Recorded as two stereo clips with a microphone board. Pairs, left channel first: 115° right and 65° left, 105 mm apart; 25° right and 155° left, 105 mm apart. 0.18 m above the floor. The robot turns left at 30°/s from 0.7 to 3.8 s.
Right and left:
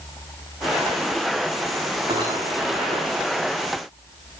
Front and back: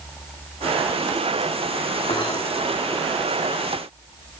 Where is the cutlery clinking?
20° left, 8 m; by 2.4 s 10° left, 8 m.